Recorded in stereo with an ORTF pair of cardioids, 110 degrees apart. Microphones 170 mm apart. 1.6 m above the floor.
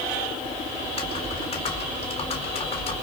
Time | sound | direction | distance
0.8 | typing on a keyboard | 40° left | 4.5 m